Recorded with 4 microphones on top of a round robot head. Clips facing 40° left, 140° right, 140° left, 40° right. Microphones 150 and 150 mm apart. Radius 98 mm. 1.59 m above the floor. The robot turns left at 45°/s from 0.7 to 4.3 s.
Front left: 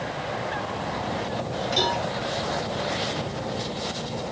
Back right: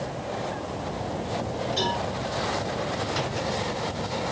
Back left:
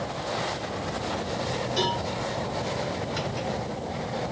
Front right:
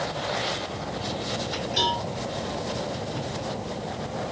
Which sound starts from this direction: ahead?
A cowbell, at 1.8 s.